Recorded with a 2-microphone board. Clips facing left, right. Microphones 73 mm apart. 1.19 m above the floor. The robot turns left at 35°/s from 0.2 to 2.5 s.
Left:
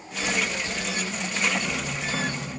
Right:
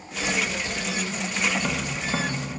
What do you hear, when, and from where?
1.6 s tapping: 40° right (ahead or behind), 0.9 m; by 2.6 s 5° right (ahead or behind), 0.9 m